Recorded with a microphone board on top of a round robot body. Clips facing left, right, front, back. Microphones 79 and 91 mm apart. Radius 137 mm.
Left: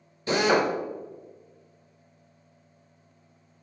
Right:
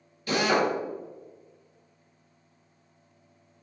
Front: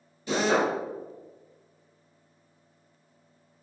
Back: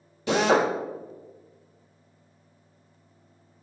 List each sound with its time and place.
0.3 s a drill: 155° left, 1.0 m